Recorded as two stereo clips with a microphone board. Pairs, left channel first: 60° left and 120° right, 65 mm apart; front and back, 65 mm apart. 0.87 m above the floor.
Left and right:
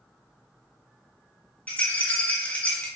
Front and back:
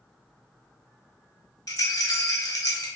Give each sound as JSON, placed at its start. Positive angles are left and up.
{"t": 1.7, "sound": "a rattle", "azimuth_deg": -5, "distance_m": 1.1}